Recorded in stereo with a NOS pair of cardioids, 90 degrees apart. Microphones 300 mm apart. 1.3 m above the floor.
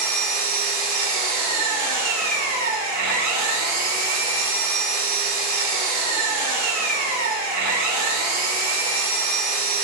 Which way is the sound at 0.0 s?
65° right.